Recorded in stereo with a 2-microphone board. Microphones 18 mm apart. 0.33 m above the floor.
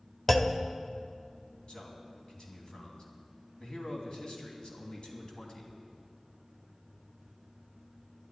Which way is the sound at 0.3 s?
15° left (ahead or behind).